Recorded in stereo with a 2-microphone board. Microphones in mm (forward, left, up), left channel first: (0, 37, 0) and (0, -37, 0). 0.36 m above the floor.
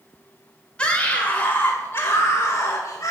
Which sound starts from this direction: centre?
A scream, at 0.8 s.